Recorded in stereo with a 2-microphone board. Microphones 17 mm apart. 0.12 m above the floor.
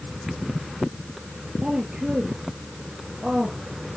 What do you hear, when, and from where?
1.6 s a woman speaking: 55° right (ahead or behind), 2.5 m